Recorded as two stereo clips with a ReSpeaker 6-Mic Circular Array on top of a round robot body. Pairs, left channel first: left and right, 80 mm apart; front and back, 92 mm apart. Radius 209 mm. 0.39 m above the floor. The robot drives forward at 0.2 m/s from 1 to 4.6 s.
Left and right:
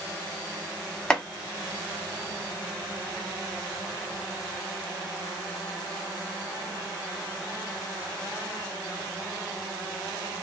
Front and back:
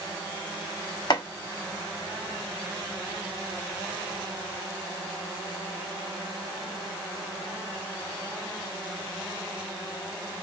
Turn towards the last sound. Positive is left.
turn(degrees=135)